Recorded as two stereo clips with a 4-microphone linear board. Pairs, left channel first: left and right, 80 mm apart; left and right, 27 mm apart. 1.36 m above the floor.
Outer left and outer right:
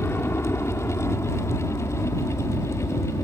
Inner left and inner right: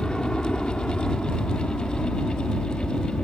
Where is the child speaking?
No child speaking in this recording.